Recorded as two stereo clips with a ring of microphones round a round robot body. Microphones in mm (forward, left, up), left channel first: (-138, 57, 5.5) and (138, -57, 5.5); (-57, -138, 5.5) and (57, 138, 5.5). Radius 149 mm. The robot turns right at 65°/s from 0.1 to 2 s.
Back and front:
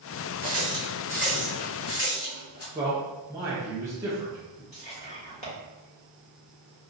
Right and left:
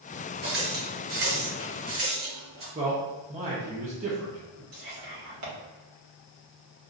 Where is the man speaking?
45° left, 0.6 m.